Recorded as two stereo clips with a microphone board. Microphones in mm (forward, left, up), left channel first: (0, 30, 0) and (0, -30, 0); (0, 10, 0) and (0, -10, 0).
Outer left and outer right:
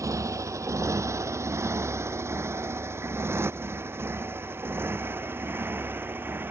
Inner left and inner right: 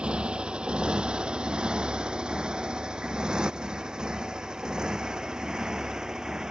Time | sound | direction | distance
0.0 | a motorcycle | 60° right (ahead or behind) | ?